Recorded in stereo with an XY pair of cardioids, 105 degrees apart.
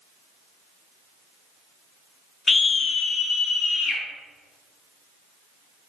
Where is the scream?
30° left, 0.7 m; by 4.0 s 75° left, 1.8 m.